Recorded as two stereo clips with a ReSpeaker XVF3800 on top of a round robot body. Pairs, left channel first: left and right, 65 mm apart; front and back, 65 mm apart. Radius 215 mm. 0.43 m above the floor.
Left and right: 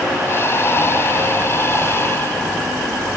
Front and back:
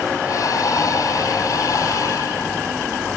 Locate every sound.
0.2 s breathing: 35° left, 2.0 m